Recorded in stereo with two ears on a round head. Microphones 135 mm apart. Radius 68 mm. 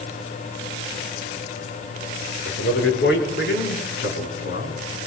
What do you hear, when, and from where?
2.5 s a man speaking: 75° left (ahead or behind), 5.5 m; by 4.8 s 85° left, 3 m